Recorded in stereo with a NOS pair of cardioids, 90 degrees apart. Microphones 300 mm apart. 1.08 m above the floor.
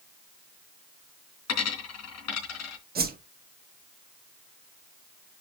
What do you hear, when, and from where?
1.5 s a dropped coin: 65° left, 3.5 m
3.0 s a whoosh: 35° right, 1.8 m